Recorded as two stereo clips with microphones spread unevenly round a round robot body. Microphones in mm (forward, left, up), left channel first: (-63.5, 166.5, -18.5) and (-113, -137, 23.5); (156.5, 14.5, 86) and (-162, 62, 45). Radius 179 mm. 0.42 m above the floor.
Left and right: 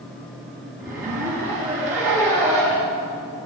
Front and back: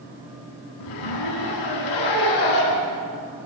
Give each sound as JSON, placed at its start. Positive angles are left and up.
{"t": 0.8, "sound": "a zipper", "azimuth_deg": -30, "distance_m": 6.0}